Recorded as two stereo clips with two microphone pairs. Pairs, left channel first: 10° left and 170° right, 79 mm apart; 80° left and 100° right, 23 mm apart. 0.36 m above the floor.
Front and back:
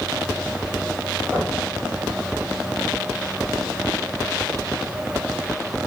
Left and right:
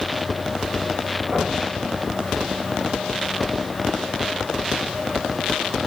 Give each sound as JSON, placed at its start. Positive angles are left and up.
{"t": 1.3, "sound": "knocking", "azimuth_deg": -70, "distance_m": 7.5}